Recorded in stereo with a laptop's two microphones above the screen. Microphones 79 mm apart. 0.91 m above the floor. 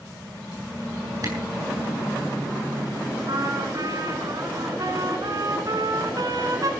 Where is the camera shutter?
45° right (ahead or behind), 7.5 m.